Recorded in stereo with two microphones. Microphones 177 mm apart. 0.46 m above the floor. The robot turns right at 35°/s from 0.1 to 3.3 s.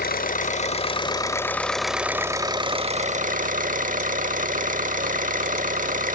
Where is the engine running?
120° left, 0.8 m; by 6.1 s 130° right, 0.8 m.